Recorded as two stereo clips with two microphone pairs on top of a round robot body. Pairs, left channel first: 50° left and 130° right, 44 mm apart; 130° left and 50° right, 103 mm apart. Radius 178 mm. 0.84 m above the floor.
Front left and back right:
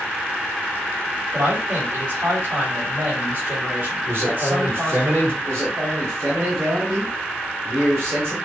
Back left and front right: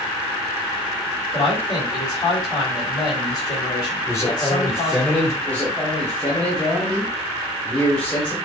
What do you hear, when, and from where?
1.3 s a man speaking: 175° right, 5 m
4.0 s a man speaking: 165° right, 4 m
5.4 s a man speaking: 150° right, 3 m